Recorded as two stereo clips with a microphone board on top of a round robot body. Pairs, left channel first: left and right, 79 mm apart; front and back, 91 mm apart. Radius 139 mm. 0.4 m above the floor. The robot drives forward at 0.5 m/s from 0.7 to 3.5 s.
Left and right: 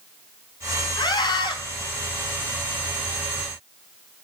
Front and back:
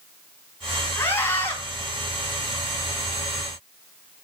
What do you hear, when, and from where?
1.0 s a scream: 60° left, 4.5 m; by 1.6 s 65° left, 4.5 m